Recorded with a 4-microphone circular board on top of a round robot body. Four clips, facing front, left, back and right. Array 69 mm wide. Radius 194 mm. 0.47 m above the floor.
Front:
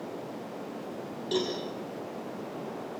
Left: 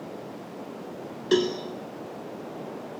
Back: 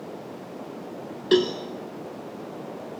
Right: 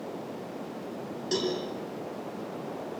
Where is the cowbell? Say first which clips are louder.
Left 7 dB, back 10 dB; 145° left, 2 m.